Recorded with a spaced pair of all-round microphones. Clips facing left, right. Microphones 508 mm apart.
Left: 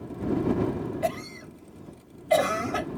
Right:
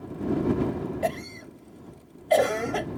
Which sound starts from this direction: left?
A cough, at 1.0 s.